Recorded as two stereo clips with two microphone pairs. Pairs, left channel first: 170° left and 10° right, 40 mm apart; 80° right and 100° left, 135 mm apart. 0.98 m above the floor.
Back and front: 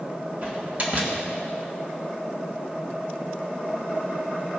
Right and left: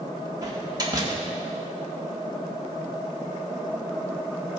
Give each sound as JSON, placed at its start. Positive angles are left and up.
{"t": 0.4, "sound": "a door slam", "azimuth_deg": 40, "distance_m": 1.5}